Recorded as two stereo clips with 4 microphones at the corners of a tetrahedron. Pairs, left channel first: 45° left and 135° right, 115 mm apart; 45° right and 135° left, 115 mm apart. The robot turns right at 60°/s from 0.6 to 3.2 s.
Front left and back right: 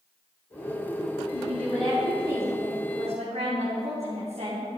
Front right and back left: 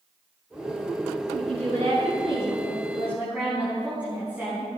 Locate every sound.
1.3 s a woman speaking: 100° left, 5 m; by 4.7 s 150° right, 5 m